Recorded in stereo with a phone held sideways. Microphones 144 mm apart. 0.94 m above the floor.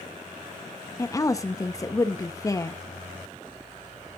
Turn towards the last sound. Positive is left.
turn(degrees=20)  # may be behind; listen again after turning